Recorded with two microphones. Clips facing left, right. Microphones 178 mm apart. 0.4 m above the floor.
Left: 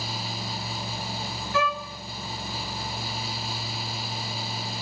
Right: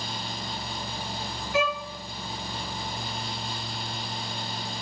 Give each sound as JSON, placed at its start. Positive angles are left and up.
{"t": 1.5, "sound": "a violin", "side_deg": -20, "distance_m": 1.6}